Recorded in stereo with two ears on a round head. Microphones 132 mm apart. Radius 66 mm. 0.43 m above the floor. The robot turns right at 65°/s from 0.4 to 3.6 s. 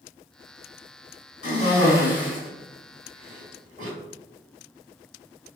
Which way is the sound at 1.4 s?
50° left (ahead or behind).